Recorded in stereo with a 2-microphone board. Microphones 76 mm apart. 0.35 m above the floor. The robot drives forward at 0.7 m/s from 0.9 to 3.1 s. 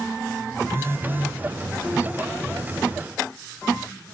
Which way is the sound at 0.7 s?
30° right (ahead or behind).